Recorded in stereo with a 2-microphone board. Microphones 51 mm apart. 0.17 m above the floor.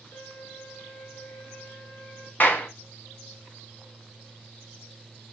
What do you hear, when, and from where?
0.1 s a violin: 40° left (ahead or behind), 2 m
2.4 s a clap: 40° left (ahead or behind), 1.0 m